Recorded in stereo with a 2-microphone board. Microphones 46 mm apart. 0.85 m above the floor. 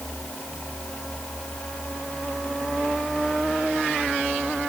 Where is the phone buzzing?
No phone buzzing in this recording.